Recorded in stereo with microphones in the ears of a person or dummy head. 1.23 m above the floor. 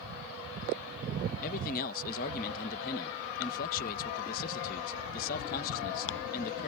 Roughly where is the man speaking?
Left.